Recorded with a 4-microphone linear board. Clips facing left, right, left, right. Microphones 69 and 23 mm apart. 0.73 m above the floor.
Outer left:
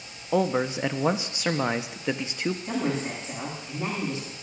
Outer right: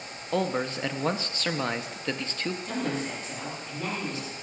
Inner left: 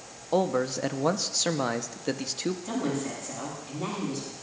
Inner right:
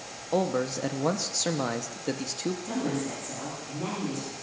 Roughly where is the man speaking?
Centre.